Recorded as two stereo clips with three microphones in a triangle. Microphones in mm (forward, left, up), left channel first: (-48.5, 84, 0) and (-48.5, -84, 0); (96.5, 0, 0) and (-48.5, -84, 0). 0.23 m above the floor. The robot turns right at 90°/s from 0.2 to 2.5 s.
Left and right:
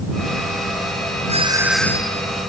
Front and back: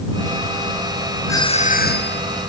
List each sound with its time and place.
1.3 s a doorbell: 45° right; by 2.2 s 40° left